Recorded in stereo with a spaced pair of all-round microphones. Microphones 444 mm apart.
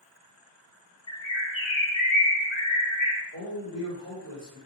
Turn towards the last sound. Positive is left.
turn(degrees=30)  # may be behind; listen again after turning